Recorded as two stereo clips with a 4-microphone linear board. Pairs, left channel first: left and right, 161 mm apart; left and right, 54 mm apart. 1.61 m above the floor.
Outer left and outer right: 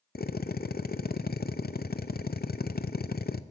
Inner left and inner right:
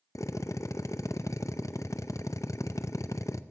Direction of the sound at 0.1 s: 70° left (ahead or behind).